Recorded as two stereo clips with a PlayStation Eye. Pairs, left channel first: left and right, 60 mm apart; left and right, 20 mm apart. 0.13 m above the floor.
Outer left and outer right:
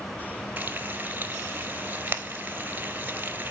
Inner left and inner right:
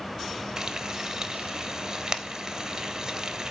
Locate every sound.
0.6 s frying: 30° right (ahead or behind), 0.9 m